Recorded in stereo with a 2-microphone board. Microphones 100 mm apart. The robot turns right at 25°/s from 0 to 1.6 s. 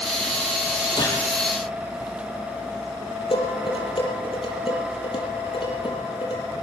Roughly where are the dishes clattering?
Left.